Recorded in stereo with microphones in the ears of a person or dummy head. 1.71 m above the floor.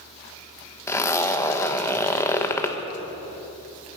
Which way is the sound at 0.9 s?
15° left (ahead or behind).